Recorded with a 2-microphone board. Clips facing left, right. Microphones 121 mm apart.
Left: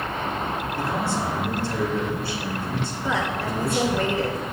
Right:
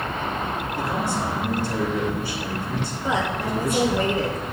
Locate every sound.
0.8 s a man speaking: 15° right (ahead or behind), 3.5 m
3.0 s a woman speaking: 20° right (ahead or behind), 1.0 m